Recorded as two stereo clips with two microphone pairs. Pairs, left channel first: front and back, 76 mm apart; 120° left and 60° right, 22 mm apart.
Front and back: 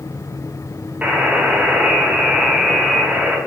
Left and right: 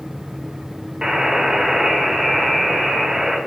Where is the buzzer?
115° right, 1.8 m.